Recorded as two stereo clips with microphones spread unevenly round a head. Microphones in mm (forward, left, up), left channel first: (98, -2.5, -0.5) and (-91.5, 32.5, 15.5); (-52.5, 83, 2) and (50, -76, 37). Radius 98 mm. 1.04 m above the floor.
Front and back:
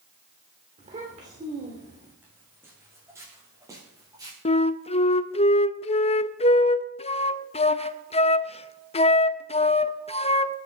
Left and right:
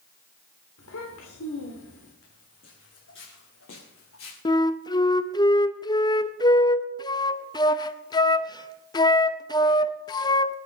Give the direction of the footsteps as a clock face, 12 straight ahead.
9 o'clock.